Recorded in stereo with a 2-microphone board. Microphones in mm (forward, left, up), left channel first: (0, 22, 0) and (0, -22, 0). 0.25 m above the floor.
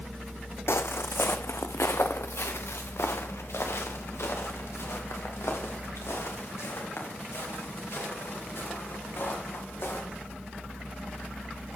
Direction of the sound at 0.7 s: 75° left (ahead or behind).